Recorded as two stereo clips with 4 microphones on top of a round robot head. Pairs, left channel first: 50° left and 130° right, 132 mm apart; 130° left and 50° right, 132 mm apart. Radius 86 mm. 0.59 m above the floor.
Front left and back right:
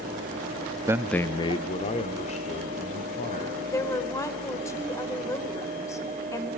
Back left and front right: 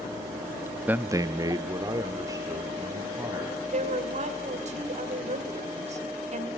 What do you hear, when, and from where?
0.9 s a man speaking: 115° right, 0.6 m; by 3.6 s 20° left, 4 m
3.7 s a woman speaking: 20° right, 2.5 m